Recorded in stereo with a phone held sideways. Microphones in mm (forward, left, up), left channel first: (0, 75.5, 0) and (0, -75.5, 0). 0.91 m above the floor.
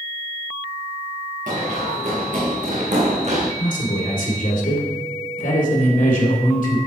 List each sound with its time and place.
1.5 s running footsteps: 65° right (ahead or behind), 4 m; by 3.5 s 55° right (ahead or behind), 2.5 m
3.6 s a man speaking: 75° left (ahead or behind), 2.5 m